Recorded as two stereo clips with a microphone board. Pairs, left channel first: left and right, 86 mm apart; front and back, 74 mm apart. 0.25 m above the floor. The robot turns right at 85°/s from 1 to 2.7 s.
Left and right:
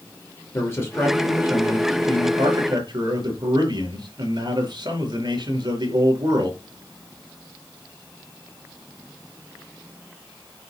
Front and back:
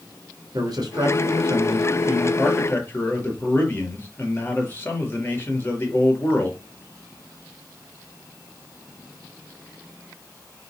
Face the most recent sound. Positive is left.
turn(degrees=-65)